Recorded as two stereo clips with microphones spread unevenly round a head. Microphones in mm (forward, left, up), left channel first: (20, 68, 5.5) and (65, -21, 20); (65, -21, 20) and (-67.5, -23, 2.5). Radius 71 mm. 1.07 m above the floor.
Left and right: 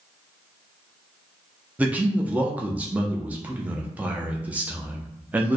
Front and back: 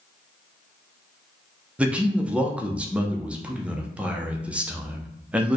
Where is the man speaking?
140° right, 0.6 m.